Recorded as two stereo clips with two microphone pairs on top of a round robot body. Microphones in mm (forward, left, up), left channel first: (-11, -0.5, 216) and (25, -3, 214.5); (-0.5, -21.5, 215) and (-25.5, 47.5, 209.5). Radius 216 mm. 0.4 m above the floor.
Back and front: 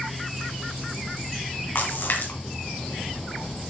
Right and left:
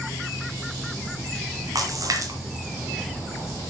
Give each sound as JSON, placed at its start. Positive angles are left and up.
{"t": 1.8, "sound": "a splash", "azimuth_deg": 150, "distance_m": 2.5}